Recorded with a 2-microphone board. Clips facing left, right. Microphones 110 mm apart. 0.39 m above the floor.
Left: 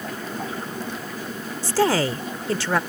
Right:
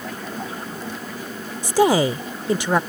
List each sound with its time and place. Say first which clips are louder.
1.6 s a woman speaking: right 4 dB; 15° right (ahead or behind)